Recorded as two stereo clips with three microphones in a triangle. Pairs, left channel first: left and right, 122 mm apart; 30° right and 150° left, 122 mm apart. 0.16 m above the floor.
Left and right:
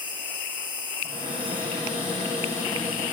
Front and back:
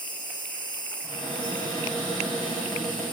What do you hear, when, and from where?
0.0 s an insect: 60° right, 1.5 m
1.0 s a cupboard door: 115° right, 6 m